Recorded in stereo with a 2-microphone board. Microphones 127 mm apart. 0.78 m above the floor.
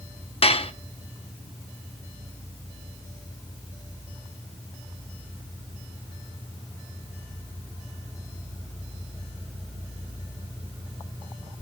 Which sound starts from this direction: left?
Dishes clattering, at 0.4 s.